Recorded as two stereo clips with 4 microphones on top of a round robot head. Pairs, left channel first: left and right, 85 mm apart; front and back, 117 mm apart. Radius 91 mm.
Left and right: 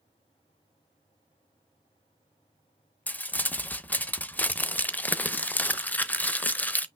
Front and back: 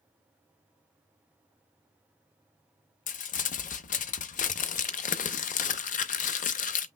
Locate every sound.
3.1 s crumpling: 15° left, 0.6 m